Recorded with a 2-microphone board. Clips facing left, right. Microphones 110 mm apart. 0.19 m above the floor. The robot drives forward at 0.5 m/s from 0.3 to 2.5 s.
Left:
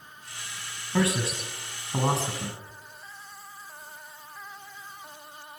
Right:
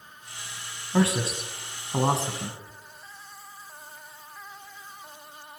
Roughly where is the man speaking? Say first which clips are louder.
Right 2 dB; right.